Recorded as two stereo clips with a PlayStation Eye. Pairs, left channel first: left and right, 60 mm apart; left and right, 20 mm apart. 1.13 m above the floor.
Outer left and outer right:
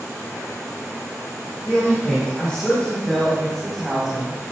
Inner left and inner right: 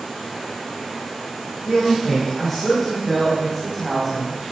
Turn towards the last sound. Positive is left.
turn(degrees=-10)  # may be behind; listen again after turning